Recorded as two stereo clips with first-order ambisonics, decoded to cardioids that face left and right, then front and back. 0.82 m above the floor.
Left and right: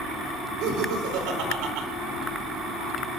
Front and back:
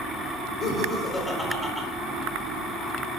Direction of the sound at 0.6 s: 60° right.